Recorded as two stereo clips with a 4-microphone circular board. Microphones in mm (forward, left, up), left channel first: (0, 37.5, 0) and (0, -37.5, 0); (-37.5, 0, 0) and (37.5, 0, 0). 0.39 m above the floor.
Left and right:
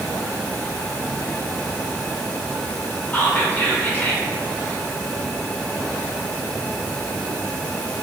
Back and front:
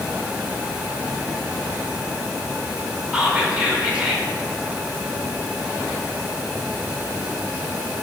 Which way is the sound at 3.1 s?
65° left.